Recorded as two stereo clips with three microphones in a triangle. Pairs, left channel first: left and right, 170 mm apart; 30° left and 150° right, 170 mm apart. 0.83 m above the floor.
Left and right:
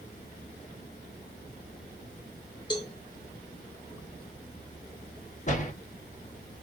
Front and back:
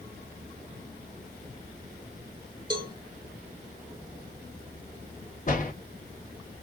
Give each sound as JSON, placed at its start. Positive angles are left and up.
{"t": 2.7, "sound": "a cowbell", "azimuth_deg": 150, "distance_m": 0.7}
{"t": 5.5, "sound": "a door slam", "azimuth_deg": 55, "distance_m": 0.9}